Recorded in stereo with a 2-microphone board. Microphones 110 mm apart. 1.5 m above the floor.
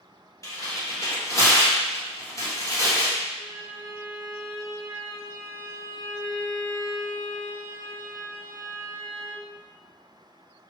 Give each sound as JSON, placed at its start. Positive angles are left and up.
{"t": 0.4, "sound": "tearing paper", "side_deg": 30, "distance_m": 1.1}
{"t": 3.4, "sound": "a violin", "side_deg": -35, "distance_m": 1.3}